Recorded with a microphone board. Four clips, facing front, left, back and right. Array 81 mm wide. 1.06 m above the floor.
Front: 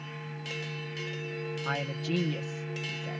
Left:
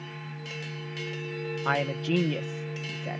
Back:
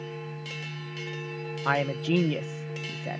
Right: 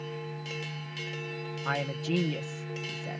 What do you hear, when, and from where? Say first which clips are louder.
1.6 s a man speaking: left 4 dB, back 9 dB; 150° left